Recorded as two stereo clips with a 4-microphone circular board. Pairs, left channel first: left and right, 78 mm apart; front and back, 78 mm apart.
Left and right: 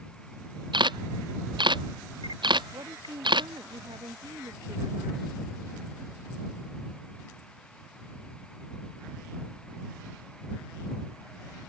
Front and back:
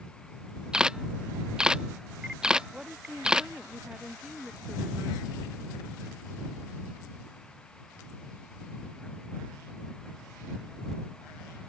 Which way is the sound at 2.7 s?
100° right.